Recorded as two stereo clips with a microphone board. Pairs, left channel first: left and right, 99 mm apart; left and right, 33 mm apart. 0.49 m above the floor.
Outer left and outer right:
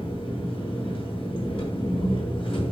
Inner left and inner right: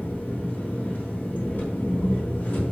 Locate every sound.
0.0 s an engine running: 55° left (ahead or behind), 4 m